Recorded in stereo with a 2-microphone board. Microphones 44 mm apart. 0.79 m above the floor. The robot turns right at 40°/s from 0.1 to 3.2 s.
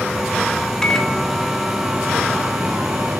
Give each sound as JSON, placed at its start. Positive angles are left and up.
{"t": 0.8, "sound": "a microwave", "azimuth_deg": 160, "distance_m": 1.8}